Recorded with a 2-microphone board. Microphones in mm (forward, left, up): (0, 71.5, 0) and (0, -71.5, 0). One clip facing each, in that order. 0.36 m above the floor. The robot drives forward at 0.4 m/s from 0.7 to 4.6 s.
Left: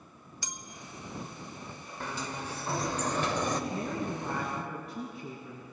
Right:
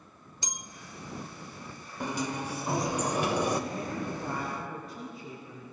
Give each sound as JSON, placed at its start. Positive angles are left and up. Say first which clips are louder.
{"t": 0.4, "sound": "a bell", "louder": "right 3 dB", "side_deg": -20, "distance_m": 1.0}
{"t": 2.0, "sound": "a sliding door", "louder": "right 5 dB", "side_deg": -15, "distance_m": 0.9}
{"t": 3.7, "sound": "a woman speaking", "louder": "left 1 dB", "side_deg": 70, "distance_m": 3.0}